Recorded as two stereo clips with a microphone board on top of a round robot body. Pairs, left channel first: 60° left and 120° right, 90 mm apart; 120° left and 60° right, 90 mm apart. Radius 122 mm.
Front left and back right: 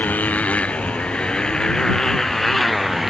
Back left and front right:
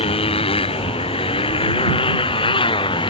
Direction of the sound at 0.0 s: 135° left.